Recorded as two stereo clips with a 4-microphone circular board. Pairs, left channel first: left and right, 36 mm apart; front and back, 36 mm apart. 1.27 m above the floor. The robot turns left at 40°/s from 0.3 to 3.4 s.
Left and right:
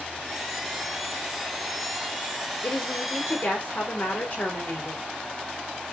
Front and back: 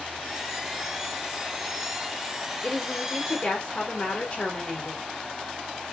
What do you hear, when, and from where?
2.6 s a woman speaking: 75° left, 4 m; by 5.0 s 45° left, 4 m